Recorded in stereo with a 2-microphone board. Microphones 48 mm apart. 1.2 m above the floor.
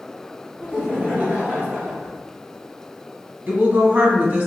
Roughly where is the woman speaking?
Right.